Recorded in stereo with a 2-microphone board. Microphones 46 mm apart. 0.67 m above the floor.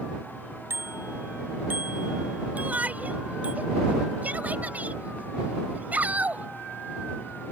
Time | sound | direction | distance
0.7 | a bicycle bell | 60° right (ahead or behind) | ?
2.5 | a shout | 35° right (ahead or behind) | ?